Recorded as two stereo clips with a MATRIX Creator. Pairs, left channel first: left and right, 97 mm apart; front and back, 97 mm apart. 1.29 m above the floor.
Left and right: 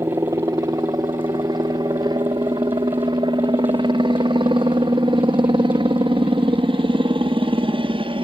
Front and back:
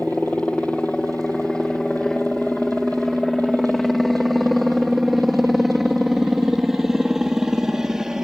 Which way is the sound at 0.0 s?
70° right.